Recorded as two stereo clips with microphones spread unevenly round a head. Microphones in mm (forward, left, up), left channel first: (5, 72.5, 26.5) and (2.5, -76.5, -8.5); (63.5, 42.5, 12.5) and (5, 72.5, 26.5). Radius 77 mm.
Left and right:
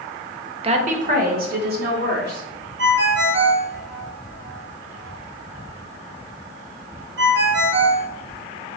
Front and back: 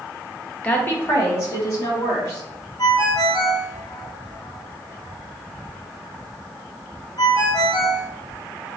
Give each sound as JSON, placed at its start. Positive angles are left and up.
{"t": 0.6, "sound": "a woman speaking", "azimuth_deg": -80, "distance_m": 0.6}
{"t": 2.8, "sound": "a ringtone", "azimuth_deg": -80, "distance_m": 0.7}